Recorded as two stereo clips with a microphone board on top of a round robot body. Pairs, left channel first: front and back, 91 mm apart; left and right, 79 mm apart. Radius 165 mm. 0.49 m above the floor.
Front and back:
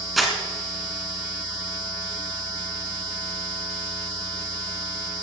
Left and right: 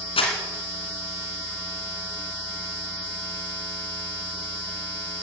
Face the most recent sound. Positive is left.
turn(degrees=90)